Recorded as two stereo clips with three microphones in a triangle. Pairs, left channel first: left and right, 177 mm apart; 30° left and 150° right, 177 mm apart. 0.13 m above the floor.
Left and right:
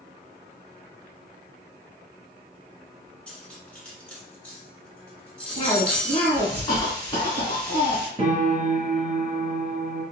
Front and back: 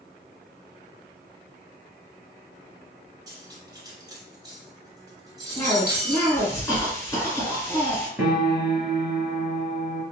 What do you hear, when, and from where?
3.3 s cutlery clinking: 165° left, 1.0 m
5.5 s a cough: 80° left, 1.8 m
8.2 s a piano: 80° right, 1.1 m